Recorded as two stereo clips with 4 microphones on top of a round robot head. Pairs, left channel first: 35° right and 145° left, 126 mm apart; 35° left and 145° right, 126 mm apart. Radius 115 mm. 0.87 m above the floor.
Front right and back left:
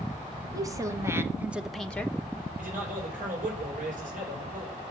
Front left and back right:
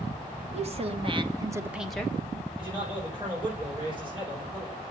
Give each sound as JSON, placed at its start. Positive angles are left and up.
{"t": 0.5, "sound": "a woman speaking", "azimuth_deg": -155, "distance_m": 1.6}
{"t": 2.6, "sound": "a man speaking", "azimuth_deg": 160, "distance_m": 5.0}